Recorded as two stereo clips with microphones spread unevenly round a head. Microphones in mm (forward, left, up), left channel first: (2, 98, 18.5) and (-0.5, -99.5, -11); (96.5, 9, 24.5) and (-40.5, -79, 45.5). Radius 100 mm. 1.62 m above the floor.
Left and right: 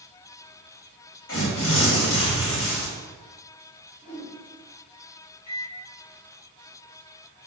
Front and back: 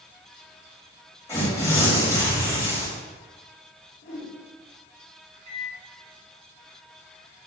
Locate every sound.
1.3 s tearing paper: 110° left, 2 m
4.0 s a whoosh: 40° left, 1.9 m
5.5 s a microwave: 150° left, 1.8 m